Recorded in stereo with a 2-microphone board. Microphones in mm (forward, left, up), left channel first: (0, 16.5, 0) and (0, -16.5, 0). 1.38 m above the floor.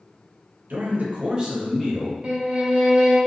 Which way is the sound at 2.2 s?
35° right (ahead or behind).